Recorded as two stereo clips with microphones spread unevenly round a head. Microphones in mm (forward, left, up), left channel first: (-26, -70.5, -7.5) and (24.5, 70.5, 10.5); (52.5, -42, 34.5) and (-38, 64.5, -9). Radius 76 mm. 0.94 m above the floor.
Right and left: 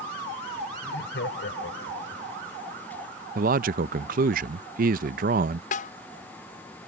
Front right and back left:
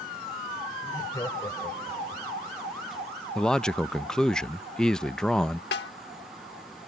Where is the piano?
No piano in this recording.